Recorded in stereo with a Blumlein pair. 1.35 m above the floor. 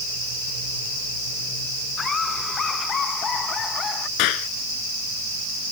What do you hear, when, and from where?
2.0 s laughter: 20° left; by 4.1 s 25° left
4.2 s a clap: 40° left